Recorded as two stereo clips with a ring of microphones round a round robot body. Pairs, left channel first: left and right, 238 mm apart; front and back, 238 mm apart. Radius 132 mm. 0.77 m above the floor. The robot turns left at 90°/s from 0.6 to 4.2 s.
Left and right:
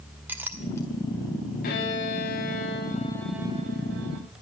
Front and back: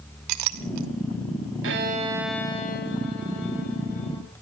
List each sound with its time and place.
0.3 s a clink: 175° right, 0.8 m; by 0.9 s 160° left, 0.8 m
1.6 s a violin: 150° left, 1.2 m; by 4.2 s 80° right, 1.2 m